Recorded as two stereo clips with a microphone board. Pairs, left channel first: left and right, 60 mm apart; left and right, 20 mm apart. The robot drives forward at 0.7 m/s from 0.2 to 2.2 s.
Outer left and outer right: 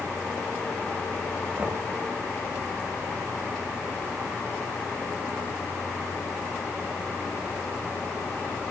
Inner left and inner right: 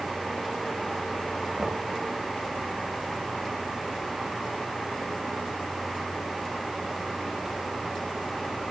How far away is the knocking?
About 3.5 m.